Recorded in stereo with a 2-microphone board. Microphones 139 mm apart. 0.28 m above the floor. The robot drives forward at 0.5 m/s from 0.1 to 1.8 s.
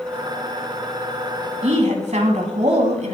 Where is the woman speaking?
60° right (ahead or behind), 2.5 m.